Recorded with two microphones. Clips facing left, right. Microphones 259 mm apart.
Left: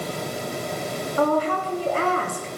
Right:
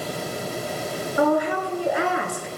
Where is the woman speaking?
15° right (ahead or behind), 1.2 m.